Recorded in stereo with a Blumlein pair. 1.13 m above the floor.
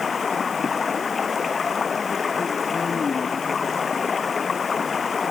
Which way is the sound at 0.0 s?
20° left.